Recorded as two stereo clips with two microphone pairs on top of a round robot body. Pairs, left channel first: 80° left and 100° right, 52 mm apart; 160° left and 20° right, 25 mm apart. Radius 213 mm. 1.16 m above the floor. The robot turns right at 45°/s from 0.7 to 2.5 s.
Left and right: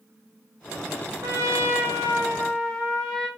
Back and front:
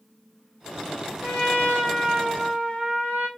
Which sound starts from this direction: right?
A trumpet, at 1.2 s.